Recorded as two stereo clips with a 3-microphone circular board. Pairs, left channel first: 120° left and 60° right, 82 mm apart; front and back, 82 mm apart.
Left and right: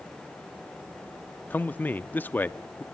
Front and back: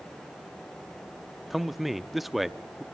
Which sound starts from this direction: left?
A man speaking, at 1.5 s.